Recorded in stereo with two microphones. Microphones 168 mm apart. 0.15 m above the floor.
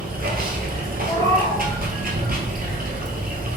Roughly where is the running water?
Right.